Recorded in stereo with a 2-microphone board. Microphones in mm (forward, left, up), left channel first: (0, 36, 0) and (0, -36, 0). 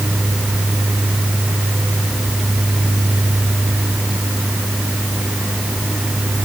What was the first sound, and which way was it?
Only background noise.